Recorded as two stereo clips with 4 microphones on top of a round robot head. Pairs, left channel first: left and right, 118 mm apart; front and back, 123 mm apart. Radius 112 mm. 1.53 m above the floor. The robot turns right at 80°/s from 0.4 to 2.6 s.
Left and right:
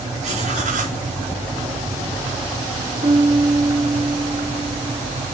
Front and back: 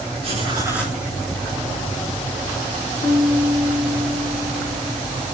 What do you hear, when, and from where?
0.2 s writing: 125° right, 4 m; by 1.0 s 80° right, 4 m
3.0 s a piano: 35° right, 1.3 m